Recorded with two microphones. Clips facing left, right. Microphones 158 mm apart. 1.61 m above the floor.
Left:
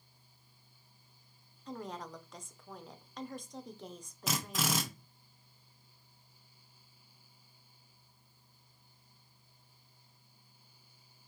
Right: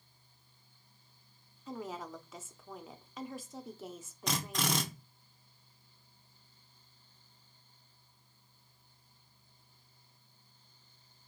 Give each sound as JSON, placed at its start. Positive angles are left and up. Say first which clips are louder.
{"t": 1.7, "sound": "a woman speaking", "louder": "right 1 dB", "side_deg": -5, "distance_m": 0.6}
{"t": 4.3, "sound": "a drill", "louder": "even", "side_deg": 5, "distance_m": 0.8}